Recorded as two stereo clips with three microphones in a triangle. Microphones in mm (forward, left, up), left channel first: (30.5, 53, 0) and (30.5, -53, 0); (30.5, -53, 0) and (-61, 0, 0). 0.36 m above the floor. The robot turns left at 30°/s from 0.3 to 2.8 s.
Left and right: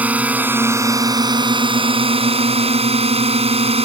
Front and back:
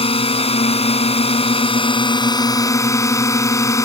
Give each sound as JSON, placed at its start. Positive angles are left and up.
{"t": 0.0, "sound": "a drone", "azimuth_deg": -15}